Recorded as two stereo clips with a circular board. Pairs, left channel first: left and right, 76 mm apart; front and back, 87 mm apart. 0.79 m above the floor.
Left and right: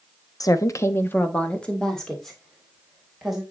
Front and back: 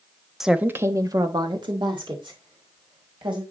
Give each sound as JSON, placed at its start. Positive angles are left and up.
{"t": 0.4, "sound": "a woman speaking", "azimuth_deg": 95, "distance_m": 0.9}